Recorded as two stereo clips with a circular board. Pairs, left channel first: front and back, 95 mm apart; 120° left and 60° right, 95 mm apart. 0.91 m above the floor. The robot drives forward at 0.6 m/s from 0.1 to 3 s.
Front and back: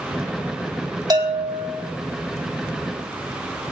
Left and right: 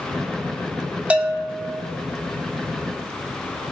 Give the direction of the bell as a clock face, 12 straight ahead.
5 o'clock.